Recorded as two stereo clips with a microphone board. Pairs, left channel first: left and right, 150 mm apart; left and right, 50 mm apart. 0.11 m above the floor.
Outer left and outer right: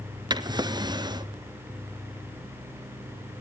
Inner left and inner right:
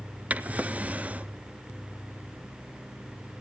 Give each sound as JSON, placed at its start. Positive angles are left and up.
{"t": 0.3, "sound": "a drawer", "side_deg": -30, "distance_m": 0.8}